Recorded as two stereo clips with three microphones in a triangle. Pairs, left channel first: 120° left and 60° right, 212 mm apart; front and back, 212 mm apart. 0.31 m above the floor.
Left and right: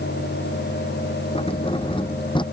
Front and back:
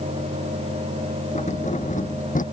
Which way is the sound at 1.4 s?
55° left.